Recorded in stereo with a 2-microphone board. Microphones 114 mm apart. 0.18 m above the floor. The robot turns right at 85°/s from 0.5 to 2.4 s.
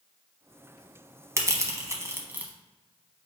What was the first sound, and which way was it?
Crushing, 25° right (ahead or behind).